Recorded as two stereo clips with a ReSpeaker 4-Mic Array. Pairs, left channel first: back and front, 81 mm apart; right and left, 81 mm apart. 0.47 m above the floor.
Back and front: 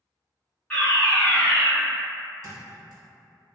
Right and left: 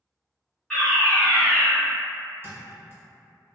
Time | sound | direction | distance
0.7 | a fire alarm | 140° right | 1.7 m
2.4 | a thud | 35° left | 1.1 m